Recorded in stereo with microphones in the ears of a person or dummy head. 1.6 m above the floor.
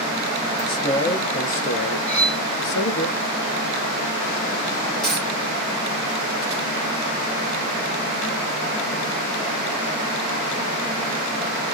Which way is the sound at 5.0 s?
Centre (ahead or behind).